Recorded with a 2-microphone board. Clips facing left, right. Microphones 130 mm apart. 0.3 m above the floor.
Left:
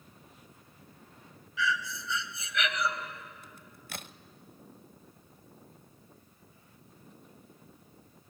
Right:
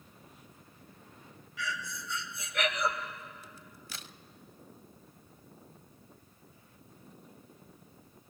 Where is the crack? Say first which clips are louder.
Even; 55° left (ahead or behind), 0.5 m.